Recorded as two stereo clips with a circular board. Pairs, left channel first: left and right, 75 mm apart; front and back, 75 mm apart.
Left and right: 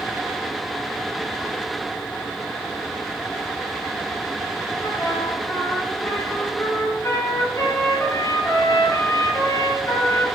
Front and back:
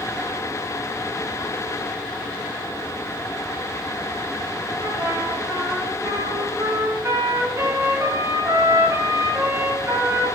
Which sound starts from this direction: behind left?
A trumpet, at 4.8 s.